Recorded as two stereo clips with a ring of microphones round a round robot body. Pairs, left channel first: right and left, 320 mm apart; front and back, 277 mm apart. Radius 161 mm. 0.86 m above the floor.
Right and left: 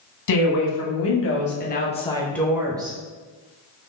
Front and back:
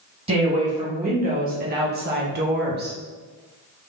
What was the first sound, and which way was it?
A woman speaking, 110° right.